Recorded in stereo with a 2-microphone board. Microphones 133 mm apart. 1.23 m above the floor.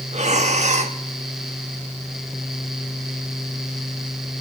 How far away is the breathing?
About 0.9 m.